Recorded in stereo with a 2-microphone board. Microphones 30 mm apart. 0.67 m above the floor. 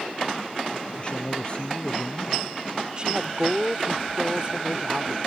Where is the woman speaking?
30° right (ahead or behind).